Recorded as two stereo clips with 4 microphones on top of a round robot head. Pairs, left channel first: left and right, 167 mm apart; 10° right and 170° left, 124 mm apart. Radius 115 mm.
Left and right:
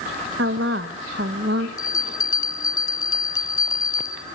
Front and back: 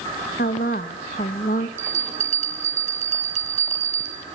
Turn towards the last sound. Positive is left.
turn(degrees=160)